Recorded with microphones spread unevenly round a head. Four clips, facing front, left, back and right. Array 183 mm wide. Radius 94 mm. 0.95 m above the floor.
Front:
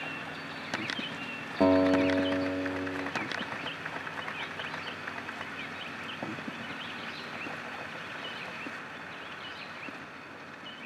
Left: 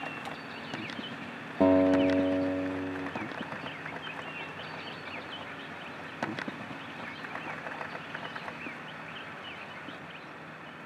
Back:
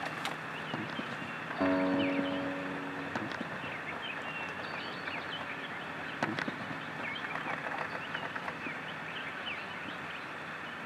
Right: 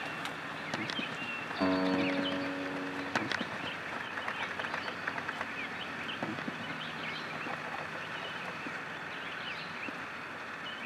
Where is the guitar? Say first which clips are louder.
Left 8 dB, front 6 dB; 50° left, 0.9 m.